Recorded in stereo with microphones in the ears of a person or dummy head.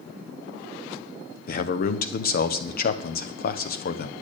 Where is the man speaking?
50° left (ahead or behind), 1.1 m.